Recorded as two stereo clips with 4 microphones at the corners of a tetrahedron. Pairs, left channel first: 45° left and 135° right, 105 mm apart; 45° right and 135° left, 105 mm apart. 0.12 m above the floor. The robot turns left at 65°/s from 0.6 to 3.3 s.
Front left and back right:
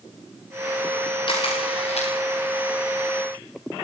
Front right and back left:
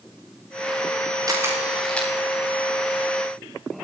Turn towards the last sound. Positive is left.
turn(degrees=-50)